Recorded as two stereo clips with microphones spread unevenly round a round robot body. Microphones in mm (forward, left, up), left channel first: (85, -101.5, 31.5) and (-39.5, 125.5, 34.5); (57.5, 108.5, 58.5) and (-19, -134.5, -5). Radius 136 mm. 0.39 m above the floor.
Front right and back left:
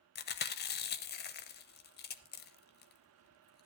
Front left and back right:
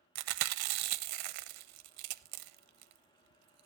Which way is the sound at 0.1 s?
115° right.